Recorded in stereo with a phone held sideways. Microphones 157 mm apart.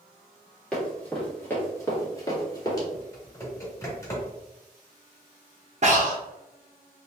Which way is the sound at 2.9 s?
20° left (ahead or behind).